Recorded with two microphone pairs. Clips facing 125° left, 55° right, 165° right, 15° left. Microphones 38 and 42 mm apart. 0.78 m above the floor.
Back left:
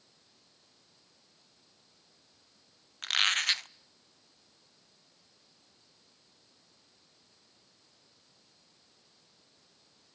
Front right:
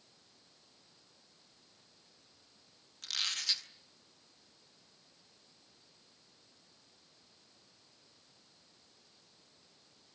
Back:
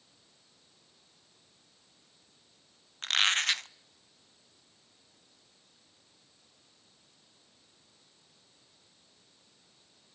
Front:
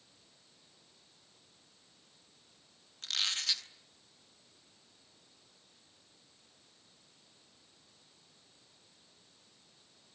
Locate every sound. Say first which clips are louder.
3.0 s a squeak: back left 9 dB, back 9 dB; 155° left, 0.5 m